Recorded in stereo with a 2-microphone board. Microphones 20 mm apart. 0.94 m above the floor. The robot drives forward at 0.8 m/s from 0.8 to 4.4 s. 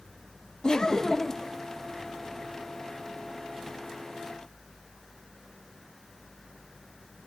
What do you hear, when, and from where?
0.6 s laughter: 35° left (ahead or behind), 0.7 m; by 1.5 s 20° left (ahead or behind), 1.2 m